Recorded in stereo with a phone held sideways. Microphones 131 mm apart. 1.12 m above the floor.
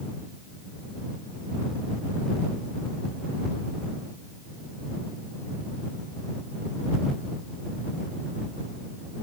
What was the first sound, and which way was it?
Only background noise.